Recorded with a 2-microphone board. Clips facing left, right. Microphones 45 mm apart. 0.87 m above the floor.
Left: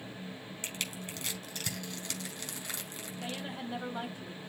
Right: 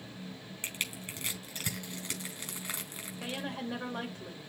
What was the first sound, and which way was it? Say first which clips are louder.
Crushing: right 2 dB; 30° right (ahead or behind).